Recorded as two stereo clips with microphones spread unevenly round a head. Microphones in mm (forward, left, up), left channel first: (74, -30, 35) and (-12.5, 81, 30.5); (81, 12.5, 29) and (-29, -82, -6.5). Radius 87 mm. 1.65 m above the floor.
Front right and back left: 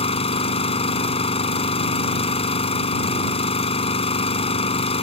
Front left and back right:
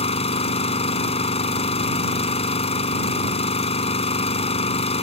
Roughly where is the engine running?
Ahead.